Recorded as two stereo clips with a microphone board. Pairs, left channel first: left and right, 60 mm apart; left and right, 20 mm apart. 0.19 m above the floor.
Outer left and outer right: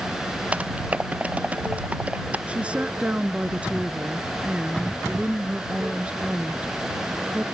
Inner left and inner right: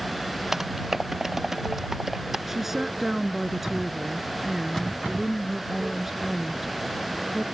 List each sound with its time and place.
0.5 s typing on a keyboard: 25° right (ahead or behind)
2.5 s a woman speaking: 20° right (ahead or behind)